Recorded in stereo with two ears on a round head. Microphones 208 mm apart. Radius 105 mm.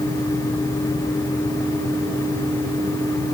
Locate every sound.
Only background noise.